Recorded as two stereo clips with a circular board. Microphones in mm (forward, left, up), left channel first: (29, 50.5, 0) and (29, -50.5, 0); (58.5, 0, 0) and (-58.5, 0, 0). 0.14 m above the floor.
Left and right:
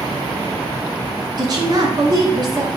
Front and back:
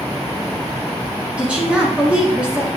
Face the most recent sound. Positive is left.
turn(degrees=-105)